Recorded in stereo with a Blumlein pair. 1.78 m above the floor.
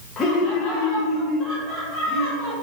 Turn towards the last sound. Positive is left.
turn(degrees=15)